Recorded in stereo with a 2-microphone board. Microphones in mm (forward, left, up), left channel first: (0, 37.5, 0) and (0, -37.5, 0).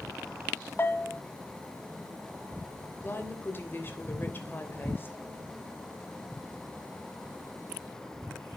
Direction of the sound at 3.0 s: 30° left (ahead or behind).